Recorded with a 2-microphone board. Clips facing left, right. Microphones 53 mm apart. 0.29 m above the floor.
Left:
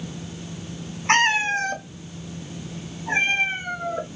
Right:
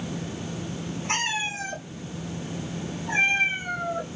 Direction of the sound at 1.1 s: 65° left (ahead or behind).